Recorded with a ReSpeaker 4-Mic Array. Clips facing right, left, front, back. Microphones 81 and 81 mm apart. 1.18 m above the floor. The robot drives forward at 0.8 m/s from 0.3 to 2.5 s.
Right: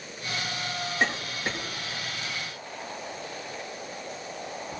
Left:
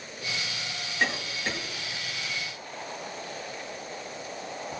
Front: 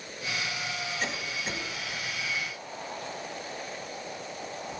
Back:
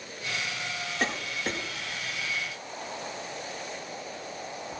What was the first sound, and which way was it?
A cough, 160° right.